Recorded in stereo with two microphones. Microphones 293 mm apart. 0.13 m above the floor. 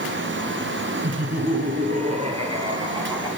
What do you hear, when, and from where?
1.0 s laughter: 30° right (ahead or behind), 1.7 m; by 3.3 s 10° right (ahead or behind), 3 m